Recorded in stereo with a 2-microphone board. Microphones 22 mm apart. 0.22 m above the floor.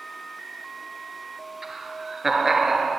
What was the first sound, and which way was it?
Laughter, 10° right (ahead or behind).